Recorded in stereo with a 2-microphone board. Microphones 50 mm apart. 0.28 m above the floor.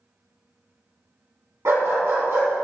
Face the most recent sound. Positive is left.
turn(degrees=-60)  # may be behind; listen again after turning